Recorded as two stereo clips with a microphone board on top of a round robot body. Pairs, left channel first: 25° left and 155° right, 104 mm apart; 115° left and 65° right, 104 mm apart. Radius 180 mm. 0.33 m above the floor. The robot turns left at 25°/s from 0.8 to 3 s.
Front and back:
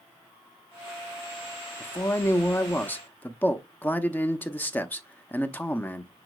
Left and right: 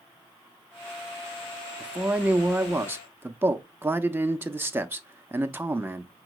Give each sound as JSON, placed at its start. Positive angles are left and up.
{"t": 1.8, "sound": "a man speaking", "azimuth_deg": 5, "distance_m": 0.9}